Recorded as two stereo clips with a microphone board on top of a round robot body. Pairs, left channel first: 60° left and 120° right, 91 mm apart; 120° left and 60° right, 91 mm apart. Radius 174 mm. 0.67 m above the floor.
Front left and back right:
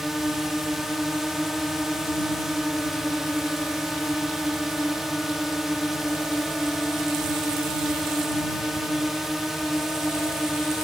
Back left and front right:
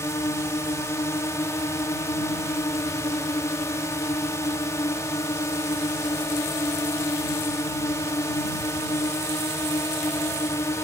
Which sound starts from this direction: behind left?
A drone, at 0.0 s.